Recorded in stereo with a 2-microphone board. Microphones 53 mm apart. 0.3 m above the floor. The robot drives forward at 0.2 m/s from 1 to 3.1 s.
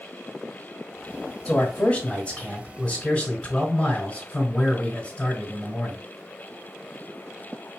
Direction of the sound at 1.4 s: 25° left (ahead or behind).